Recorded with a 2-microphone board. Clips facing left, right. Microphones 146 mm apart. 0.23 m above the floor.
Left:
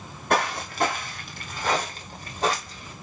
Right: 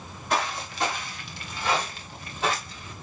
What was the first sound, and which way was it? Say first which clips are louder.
Footsteps: left 4 dB; 60° left (ahead or behind).